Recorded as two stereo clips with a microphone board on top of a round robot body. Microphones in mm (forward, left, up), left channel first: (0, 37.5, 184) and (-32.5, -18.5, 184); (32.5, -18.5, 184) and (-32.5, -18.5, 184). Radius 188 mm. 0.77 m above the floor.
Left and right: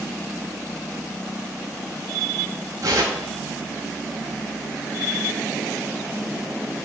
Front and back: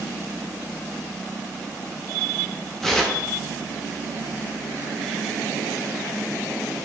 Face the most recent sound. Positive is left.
turn(degrees=-85)